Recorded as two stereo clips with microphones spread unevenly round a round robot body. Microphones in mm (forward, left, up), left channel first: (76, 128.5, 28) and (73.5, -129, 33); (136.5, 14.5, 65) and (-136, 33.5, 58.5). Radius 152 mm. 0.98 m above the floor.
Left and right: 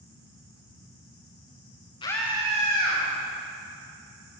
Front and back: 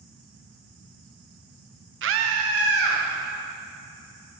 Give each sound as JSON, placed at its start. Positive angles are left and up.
{"t": 2.0, "sound": "a scream", "azimuth_deg": 155, "distance_m": 0.7}